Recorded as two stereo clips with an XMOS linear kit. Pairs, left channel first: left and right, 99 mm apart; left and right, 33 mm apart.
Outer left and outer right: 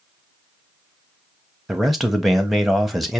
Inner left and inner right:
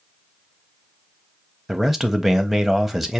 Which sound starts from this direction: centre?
A man speaking, at 1.7 s.